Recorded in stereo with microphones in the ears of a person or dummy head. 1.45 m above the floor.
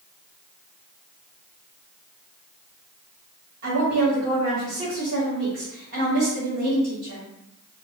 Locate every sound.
3.6 s a woman speaking: 55° right (ahead or behind), 1.7 m